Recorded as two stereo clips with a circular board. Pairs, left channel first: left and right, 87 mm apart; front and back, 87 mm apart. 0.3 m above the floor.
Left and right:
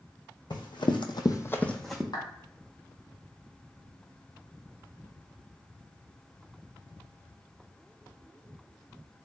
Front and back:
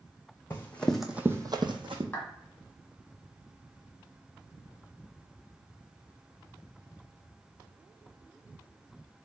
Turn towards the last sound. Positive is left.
turn(degrees=70)